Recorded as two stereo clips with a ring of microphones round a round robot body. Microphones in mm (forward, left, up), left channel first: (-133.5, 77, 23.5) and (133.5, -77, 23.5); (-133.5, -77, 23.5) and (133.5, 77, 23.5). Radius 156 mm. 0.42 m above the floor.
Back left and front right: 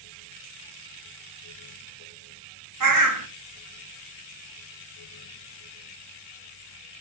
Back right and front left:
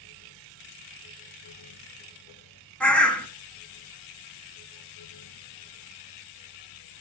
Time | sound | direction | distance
2.8 | a bird | 65° right | 1.8 m